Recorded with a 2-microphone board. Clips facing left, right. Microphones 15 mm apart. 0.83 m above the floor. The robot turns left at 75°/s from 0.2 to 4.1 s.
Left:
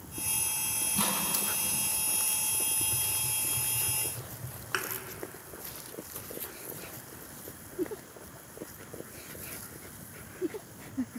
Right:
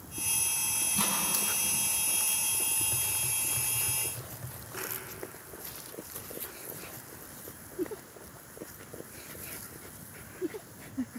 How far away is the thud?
About 2.5 m.